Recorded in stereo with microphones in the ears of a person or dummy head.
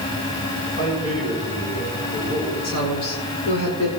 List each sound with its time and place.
0.8 s a man speaking: 40° left (ahead or behind), 7 m
2.6 s a woman speaking: 85° left, 5 m